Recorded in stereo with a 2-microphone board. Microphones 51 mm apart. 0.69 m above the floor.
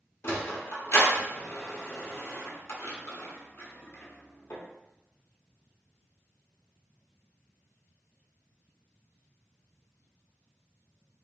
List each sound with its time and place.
0.2 s a sliding door: 50° left (ahead or behind), 0.8 m